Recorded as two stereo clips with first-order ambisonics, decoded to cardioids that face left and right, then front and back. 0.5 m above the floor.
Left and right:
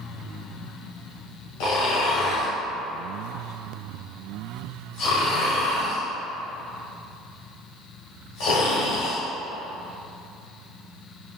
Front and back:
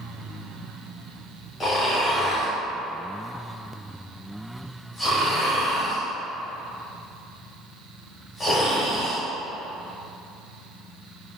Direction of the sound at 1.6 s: 75° left.